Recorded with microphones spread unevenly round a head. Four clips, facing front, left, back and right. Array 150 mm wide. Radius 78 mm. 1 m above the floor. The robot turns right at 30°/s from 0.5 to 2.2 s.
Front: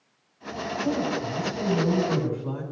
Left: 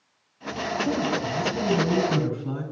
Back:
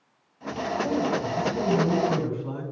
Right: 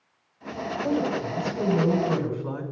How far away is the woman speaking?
About 6.5 m.